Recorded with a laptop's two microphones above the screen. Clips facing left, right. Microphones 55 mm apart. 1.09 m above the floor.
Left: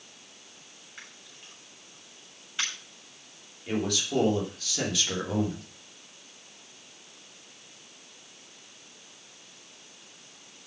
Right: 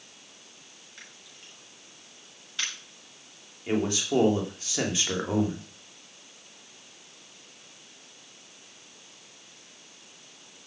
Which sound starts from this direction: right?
A man speaking, at 3.7 s.